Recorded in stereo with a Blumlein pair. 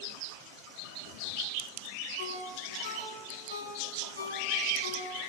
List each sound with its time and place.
2.2 s a ringtone: 70° left, 6.5 m